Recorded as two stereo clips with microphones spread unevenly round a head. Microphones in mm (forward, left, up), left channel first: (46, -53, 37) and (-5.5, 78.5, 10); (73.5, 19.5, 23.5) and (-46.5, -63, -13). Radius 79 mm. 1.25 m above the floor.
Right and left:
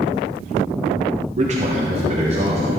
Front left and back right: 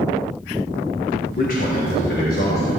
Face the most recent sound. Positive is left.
turn(degrees=70)